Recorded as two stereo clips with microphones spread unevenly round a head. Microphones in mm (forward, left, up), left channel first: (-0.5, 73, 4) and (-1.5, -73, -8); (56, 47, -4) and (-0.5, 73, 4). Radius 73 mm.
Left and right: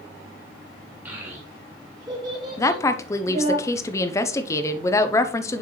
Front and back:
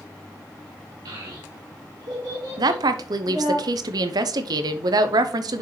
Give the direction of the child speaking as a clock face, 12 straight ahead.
6 o'clock.